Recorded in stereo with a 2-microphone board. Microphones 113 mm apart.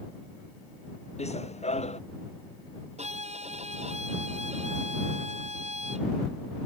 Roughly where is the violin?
Right.